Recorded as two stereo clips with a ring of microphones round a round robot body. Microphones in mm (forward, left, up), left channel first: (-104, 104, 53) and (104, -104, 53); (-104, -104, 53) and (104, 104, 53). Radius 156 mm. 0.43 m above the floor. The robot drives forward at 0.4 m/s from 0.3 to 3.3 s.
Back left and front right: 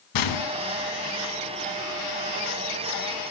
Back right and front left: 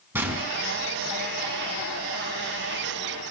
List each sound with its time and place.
0.1 s a gunshot: 130° left, 1.9 m